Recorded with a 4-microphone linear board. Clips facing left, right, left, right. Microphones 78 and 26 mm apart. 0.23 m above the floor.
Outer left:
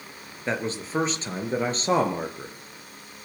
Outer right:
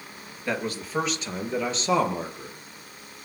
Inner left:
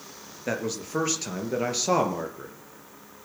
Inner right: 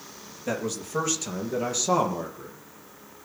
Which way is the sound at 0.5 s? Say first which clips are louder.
Outer left 1 dB, even; 25° left (ahead or behind).